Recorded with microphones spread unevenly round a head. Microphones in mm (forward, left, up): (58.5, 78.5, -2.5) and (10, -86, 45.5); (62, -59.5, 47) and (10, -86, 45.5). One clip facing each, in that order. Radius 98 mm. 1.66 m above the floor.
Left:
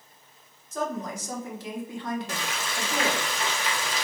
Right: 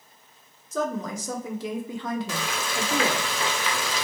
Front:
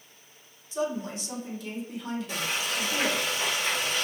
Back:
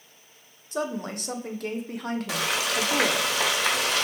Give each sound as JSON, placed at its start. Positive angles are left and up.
{"t": 0.7, "sound": "a woman speaking", "azimuth_deg": -120, "distance_m": 0.8}
{"t": 2.3, "sound": "frying", "azimuth_deg": -140, "distance_m": 0.5}